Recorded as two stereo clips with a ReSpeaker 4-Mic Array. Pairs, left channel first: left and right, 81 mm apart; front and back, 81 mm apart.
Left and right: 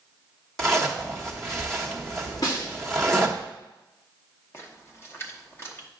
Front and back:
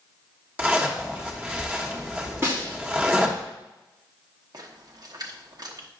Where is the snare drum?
125° left, 2.5 m.